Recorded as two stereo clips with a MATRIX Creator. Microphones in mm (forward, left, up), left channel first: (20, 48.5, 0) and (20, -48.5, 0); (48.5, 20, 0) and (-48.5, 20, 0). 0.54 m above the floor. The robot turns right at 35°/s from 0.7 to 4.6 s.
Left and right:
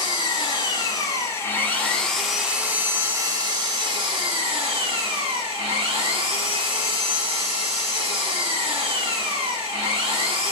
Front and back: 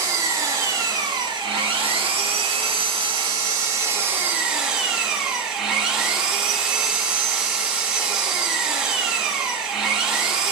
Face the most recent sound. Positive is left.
turn(degrees=-95)